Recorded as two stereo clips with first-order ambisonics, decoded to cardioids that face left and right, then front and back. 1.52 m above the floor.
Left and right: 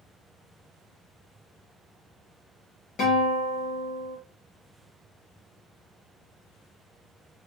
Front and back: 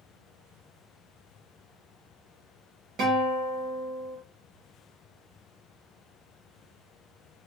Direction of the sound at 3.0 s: 135° left.